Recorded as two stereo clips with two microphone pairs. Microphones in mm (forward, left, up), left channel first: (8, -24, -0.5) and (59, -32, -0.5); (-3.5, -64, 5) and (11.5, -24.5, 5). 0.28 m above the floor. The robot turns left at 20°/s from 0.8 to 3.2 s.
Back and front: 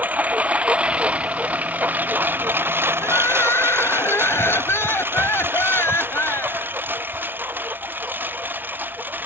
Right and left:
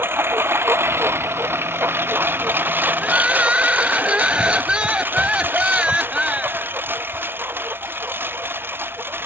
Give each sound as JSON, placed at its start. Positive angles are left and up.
{"t": 0.0, "sound": "a lawn mower", "azimuth_deg": 45}
{"t": 3.0, "sound": "crying", "azimuth_deg": 140}